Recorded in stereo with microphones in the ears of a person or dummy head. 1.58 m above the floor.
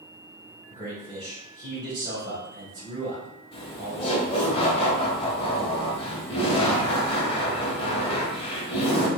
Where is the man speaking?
35° right (ahead or behind), 1.7 m.